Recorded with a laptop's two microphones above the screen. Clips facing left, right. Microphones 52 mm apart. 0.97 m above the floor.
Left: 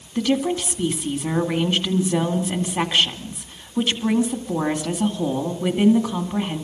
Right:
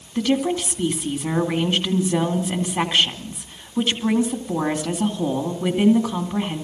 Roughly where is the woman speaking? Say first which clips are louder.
Even; centre.